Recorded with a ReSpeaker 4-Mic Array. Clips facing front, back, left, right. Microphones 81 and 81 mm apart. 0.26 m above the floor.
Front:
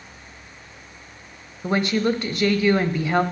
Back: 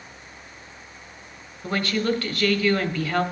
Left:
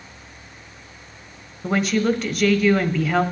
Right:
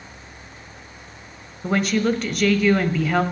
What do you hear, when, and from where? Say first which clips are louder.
1.6 s a woman speaking: front 3 dB, even; straight ahead, 1.0 m